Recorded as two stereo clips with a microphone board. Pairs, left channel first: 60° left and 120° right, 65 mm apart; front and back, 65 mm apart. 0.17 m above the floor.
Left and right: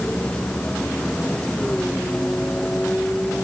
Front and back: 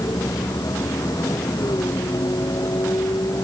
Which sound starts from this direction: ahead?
A vehicle, at 0.0 s.